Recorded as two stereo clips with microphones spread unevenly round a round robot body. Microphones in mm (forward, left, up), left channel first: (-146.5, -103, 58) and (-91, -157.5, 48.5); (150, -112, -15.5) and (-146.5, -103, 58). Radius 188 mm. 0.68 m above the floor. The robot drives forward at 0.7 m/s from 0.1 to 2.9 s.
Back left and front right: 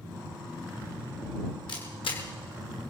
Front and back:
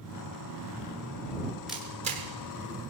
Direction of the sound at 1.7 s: 85° left.